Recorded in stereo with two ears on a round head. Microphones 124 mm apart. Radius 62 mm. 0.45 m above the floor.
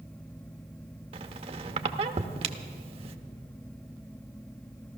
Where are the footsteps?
I don't hear footsteps.